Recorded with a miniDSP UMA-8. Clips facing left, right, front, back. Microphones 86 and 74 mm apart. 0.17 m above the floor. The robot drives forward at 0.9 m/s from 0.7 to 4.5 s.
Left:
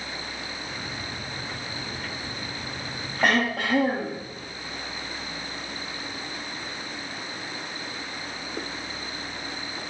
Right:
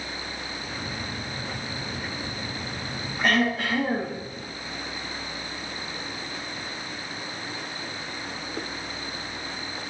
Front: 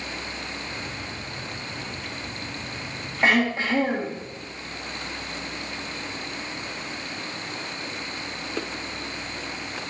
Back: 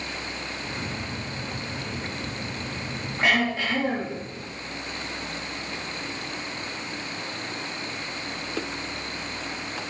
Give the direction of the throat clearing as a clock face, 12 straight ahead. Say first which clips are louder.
Even, front 2 dB; 10 o'clock.